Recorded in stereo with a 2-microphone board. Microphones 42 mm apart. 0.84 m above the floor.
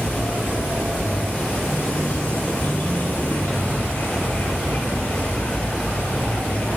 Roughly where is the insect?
Left.